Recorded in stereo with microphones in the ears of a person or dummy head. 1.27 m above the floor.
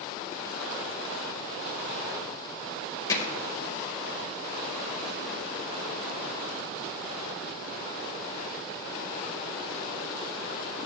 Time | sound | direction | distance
3.1 | hammering | 20° left (ahead or behind) | 4.5 m